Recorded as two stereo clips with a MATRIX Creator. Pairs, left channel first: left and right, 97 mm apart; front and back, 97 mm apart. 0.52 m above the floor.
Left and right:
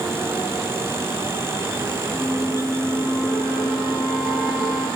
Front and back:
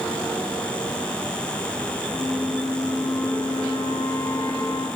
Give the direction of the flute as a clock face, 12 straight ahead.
12 o'clock.